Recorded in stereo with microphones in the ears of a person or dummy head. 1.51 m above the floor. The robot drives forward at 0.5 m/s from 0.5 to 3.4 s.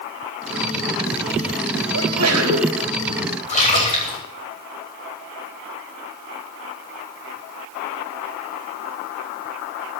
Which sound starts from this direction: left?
A splash, at 3.5 s.